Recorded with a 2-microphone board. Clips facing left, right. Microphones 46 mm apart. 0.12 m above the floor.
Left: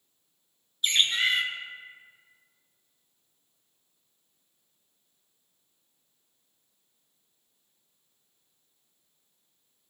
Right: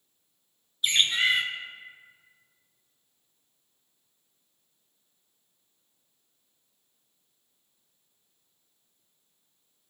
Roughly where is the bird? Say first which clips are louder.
Right 1 dB; centre.